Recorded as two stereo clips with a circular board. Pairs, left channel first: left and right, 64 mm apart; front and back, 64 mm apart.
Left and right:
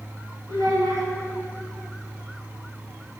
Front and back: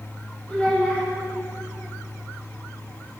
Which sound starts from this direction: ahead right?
A child speaking, at 0.5 s.